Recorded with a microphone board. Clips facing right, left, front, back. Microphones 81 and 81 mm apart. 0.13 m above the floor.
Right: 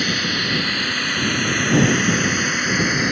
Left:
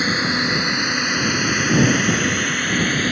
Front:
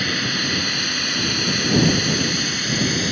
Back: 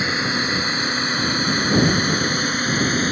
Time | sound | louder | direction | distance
0.0 | a drone | left 3 dB, back 2 dB | 135° left | ?